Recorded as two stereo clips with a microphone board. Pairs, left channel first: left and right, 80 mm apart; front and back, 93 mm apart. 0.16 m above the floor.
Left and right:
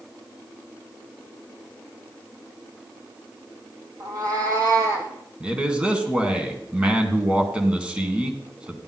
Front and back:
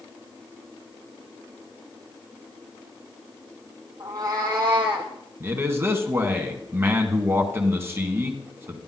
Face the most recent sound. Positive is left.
turn(degrees=-150)